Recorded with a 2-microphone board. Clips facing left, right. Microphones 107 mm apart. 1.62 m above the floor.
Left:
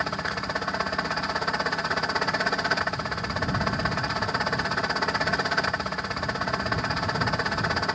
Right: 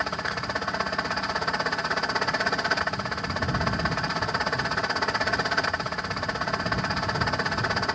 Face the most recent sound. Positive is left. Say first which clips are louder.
# even
turn(degrees=0)  # may be behind; listen again after turning